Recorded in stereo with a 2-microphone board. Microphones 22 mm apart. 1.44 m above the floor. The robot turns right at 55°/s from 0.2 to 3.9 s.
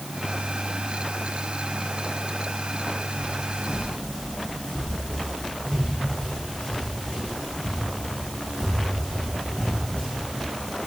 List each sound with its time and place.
3.2 s footsteps: 65° left (ahead or behind), 6 m; by 10.2 s 55° left (ahead or behind), 6 m